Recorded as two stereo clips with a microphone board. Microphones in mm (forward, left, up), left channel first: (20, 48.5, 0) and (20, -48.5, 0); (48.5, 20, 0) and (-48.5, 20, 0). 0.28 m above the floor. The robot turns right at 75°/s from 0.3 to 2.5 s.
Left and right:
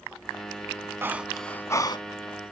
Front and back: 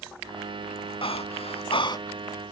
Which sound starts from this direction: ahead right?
Breathing, at 1.0 s.